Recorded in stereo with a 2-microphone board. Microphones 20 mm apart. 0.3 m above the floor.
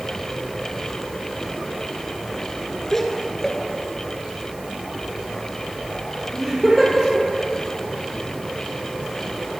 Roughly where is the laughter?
Left.